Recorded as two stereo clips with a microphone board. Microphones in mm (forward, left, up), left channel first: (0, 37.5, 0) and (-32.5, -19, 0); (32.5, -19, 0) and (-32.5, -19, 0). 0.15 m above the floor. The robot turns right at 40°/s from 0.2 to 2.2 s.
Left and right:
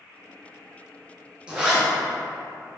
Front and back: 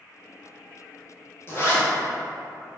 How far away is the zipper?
About 1.1 m.